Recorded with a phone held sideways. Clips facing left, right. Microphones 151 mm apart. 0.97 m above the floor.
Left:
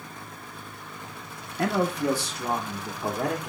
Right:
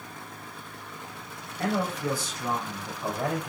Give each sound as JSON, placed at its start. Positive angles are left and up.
{"t": 1.6, "sound": "a man speaking", "side_deg": 70, "distance_m": 0.9}